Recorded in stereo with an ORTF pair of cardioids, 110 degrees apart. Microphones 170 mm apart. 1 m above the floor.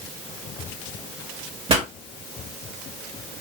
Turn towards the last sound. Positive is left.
turn(degrees=-30)